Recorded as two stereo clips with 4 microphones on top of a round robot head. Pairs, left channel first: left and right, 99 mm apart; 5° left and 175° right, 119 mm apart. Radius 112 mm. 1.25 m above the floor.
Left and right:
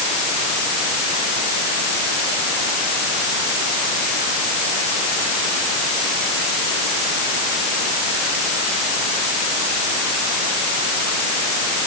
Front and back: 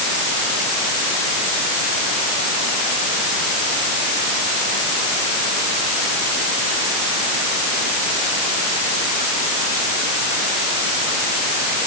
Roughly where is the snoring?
No snoring in this recording.